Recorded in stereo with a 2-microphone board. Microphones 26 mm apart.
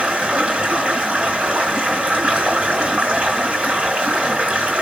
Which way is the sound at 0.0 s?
45° right (ahead or behind).